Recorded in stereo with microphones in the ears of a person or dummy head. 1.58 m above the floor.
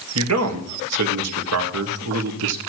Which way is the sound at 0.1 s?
80° right.